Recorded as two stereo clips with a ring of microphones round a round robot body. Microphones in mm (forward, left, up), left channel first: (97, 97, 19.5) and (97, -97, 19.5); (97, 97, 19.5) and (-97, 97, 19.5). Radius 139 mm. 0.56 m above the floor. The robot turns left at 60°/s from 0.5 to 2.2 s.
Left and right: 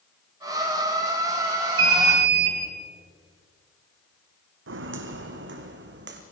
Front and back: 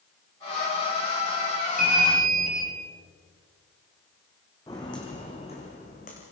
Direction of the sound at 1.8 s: 90° right.